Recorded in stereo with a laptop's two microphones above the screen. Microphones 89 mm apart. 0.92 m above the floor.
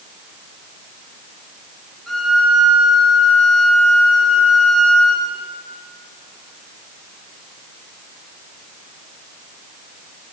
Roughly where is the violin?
Centre.